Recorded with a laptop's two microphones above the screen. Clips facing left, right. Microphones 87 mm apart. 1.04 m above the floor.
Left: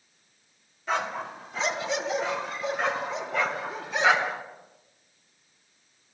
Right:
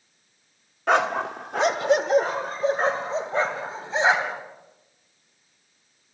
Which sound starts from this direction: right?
A dog barking, at 0.9 s.